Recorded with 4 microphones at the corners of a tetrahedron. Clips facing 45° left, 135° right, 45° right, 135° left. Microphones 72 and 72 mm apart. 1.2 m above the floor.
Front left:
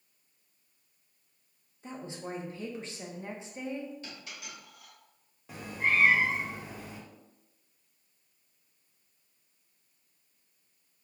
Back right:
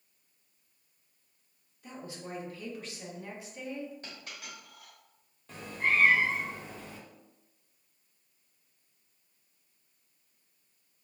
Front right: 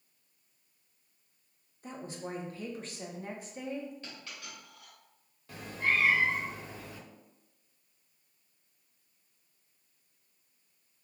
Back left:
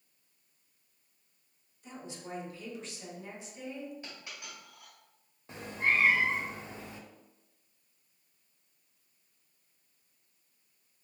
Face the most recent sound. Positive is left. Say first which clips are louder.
# even, back left 1 dB
turn(degrees=110)